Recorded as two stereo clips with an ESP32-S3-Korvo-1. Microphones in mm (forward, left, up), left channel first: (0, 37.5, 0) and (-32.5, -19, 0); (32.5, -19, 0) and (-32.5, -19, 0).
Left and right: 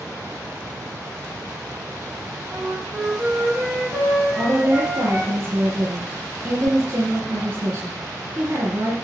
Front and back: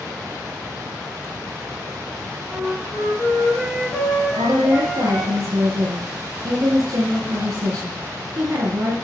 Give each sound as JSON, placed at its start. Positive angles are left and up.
{"t": 2.5, "sound": "a flute", "azimuth_deg": -60, "distance_m": 3.0}
{"t": 4.3, "sound": "a woman speaking", "azimuth_deg": -160, "distance_m": 2.0}